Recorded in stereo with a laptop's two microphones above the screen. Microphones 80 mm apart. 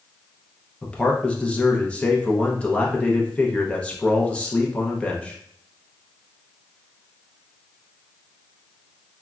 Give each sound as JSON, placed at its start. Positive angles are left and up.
{"t": 0.8, "sound": "a man speaking", "side_deg": 15, "distance_m": 0.5}